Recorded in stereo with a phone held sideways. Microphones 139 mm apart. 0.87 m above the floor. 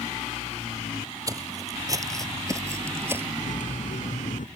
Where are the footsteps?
25° right (ahead or behind); by 3.3 s 15° right (ahead or behind).